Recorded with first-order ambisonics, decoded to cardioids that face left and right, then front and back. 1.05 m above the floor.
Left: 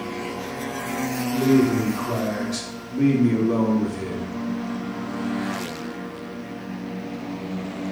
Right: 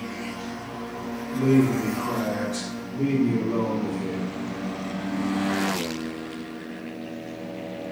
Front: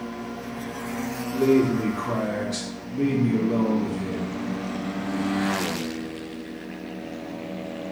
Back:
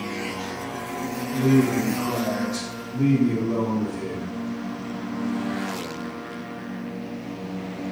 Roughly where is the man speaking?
Ahead left.